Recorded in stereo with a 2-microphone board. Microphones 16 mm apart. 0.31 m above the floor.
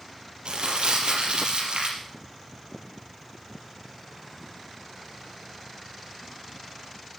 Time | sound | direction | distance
0.5 | crumpling | 70° right (ahead or behind) | 4.5 m